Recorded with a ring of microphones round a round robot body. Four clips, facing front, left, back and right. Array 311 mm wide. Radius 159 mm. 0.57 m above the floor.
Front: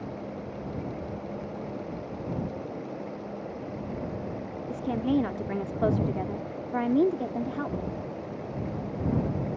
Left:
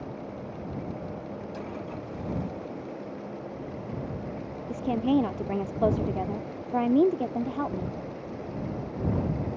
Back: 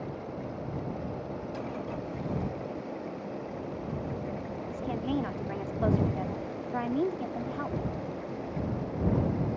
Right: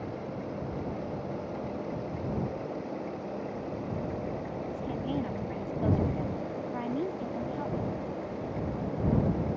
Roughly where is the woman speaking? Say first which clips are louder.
Left 11 dB, front 6 dB; ahead left.